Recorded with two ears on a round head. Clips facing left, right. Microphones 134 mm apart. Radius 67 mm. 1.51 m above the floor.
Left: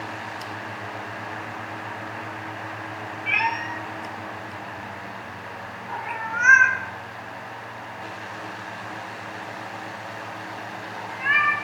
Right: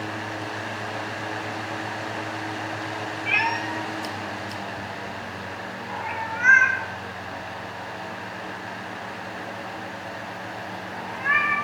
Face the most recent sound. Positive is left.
turn(degrees=40)  # may be behind; listen again after turning